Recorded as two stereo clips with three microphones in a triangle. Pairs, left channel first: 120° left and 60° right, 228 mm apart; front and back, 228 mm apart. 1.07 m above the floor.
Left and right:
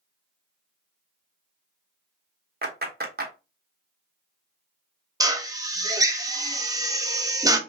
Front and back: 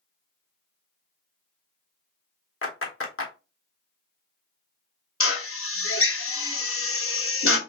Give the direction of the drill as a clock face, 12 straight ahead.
11 o'clock.